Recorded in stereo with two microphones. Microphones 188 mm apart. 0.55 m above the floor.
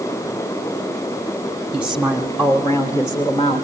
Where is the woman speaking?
10° right (ahead or behind), 1.2 m; by 3.6 s 30° left (ahead or behind), 1.8 m.